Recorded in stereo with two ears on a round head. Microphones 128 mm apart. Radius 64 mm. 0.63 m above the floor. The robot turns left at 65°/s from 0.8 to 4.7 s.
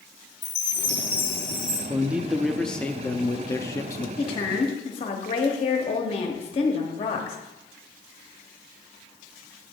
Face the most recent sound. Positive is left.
turn(degrees=85)